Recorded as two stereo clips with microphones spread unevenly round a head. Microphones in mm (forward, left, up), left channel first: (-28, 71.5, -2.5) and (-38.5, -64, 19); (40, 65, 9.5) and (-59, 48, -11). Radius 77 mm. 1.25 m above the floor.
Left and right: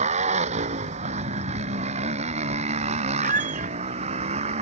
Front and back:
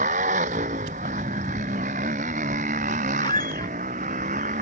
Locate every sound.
0.0 s a motorcycle: 130° right; by 4.6 s 135° right
3.2 s a squeak: 55° right